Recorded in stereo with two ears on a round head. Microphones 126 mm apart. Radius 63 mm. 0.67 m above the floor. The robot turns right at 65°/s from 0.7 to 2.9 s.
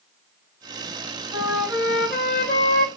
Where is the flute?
30° right, 2.5 m; by 2.9 s 75° left, 2.5 m.